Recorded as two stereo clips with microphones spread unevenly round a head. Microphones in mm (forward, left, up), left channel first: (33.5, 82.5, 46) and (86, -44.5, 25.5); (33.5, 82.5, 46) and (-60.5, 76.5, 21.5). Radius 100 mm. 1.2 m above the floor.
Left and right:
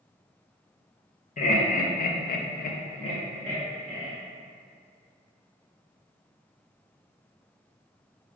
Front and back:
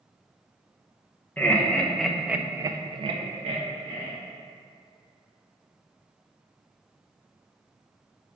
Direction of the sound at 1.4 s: 80° left.